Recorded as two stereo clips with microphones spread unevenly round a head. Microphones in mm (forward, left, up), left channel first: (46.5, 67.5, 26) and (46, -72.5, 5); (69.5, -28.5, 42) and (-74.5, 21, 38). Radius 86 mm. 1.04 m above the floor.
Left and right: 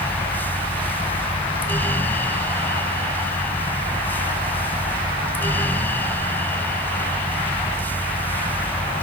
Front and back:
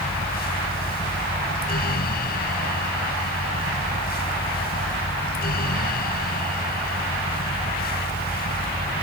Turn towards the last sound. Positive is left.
turn(degrees=15)